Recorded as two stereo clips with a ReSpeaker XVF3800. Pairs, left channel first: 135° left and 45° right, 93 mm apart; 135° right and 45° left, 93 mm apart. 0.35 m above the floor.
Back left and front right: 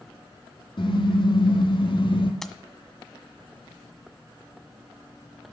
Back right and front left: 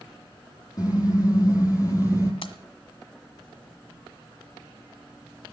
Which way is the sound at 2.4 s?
140° right.